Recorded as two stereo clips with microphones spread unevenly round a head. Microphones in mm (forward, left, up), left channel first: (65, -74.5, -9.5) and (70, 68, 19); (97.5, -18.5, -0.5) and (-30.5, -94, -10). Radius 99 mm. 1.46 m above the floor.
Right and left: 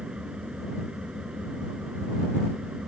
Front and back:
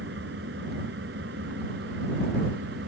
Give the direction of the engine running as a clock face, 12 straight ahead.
6 o'clock.